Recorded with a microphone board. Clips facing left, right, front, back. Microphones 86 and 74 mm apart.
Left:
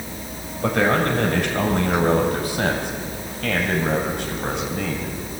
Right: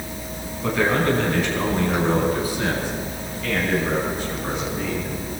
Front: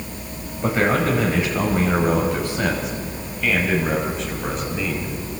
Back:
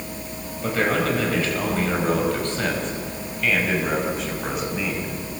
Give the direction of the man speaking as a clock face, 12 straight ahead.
10 o'clock.